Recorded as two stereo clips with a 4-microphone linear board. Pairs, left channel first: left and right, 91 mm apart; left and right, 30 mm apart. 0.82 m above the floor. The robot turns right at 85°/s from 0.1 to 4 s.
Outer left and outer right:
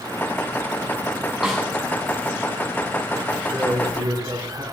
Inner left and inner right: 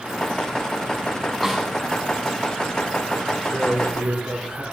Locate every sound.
1.4 s a snare drum: 5° right (ahead or behind), 6 m; by 1.7 s 15° left (ahead or behind), 6 m
3.5 s a man speaking: 160° right, 7 m; by 4.6 s 120° right, 7 m